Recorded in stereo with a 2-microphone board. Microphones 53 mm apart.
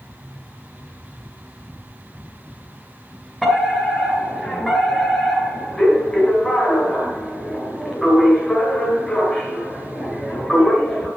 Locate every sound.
3.4 s a fire alarm: centre (ahead or behind), 5 m